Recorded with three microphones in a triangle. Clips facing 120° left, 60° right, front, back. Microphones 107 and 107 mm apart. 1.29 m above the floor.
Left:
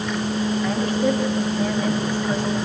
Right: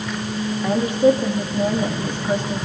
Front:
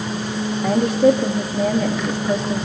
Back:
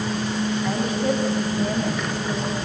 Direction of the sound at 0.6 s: 10° left.